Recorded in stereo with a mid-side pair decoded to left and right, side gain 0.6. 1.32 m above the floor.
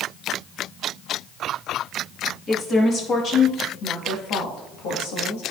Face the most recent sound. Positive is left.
turn(degrees=75)